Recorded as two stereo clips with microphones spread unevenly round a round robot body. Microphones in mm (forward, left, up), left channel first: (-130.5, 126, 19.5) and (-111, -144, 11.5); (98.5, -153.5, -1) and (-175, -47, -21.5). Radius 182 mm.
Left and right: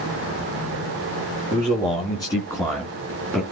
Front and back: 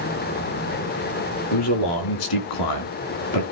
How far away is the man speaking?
About 4 m.